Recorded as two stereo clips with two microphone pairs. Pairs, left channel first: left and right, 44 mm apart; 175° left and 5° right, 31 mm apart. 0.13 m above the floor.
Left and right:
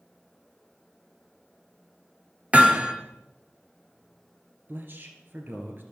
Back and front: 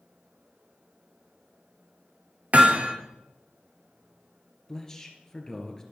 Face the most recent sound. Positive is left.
turn(degrees=-115)